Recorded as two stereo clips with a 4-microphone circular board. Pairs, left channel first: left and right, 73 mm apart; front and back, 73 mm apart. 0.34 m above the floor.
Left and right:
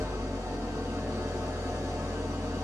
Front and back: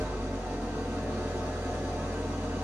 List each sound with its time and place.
0.0 s an engine running: 120° right, 0.9 m